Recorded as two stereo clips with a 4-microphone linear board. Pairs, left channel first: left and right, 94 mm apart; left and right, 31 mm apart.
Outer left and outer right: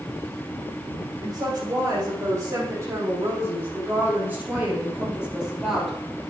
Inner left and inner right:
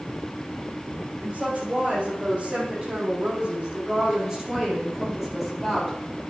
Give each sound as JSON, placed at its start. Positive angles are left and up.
{"t": 1.2, "sound": "a woman speaking", "side_deg": -40, "distance_m": 6.0}